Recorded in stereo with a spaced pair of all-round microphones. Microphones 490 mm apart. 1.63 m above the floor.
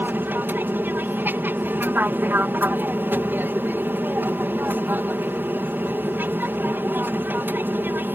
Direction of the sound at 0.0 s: 5° right (ahead or behind).